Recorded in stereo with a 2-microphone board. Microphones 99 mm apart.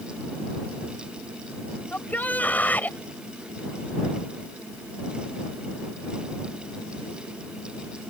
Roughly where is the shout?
Centre.